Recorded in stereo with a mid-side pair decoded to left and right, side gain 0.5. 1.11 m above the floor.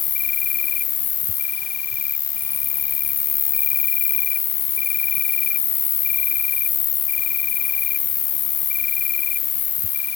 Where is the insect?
60° left.